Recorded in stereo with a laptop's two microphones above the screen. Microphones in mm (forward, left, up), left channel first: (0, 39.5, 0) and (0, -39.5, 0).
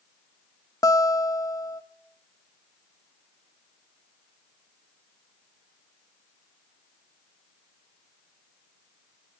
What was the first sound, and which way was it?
A guitar, 45° left (ahead or behind).